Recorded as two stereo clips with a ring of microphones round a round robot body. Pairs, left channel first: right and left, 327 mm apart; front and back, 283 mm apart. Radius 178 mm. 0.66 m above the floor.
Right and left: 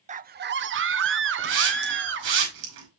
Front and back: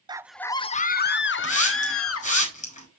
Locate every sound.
0.1 s a scream: 125° left, 0.5 m; by 2.4 s 35° left, 1.5 m
1.4 s a hiss: 65° left, 5.5 m